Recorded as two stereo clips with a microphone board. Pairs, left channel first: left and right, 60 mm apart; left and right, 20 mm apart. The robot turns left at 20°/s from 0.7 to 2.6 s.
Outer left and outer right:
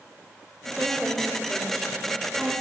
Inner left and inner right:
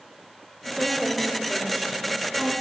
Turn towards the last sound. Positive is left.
turn(degrees=155)